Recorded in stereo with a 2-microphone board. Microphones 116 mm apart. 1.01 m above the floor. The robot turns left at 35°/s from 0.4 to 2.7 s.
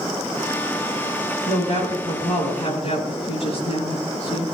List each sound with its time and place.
1.5 s a woman speaking: 110° left, 8.5 m; by 4.4 s 65° left, 8.5 m